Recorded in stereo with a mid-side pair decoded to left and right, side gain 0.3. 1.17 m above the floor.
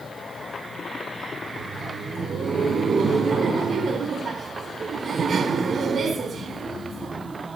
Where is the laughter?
70° right, 5 m.